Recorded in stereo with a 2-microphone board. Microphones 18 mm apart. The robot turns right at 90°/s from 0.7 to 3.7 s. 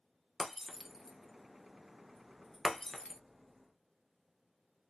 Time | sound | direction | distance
0.4 | breaking glass | 10° right (ahead or behind) | 0.6 m